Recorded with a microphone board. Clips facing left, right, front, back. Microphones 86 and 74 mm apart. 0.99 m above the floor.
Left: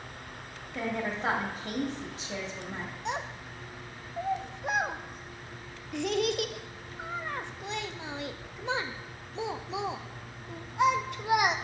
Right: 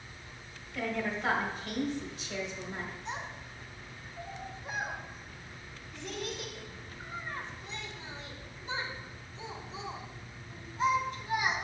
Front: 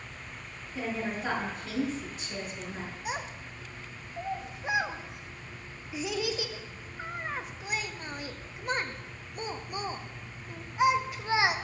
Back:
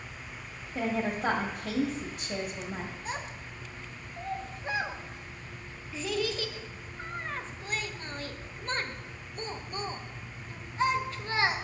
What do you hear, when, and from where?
0.8 s a woman speaking: 150° left, 1.8 m
3.0 s a child speaking: 75° left, 0.5 m